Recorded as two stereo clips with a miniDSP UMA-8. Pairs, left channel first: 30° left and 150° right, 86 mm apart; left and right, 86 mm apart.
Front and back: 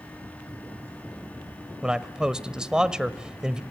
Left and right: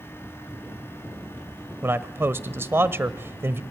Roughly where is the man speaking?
Right.